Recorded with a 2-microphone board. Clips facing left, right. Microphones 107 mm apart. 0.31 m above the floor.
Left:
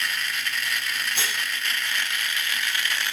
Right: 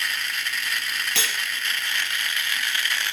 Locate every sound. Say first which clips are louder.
1.1 s cutlery clinking: even; 80° right, 5 m